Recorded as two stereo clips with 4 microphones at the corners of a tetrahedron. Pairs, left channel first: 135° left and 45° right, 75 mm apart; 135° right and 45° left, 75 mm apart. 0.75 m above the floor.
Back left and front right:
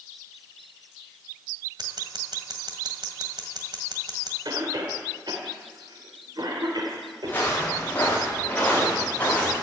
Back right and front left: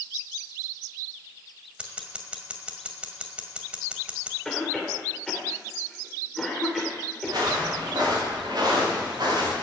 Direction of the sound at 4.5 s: 50° right.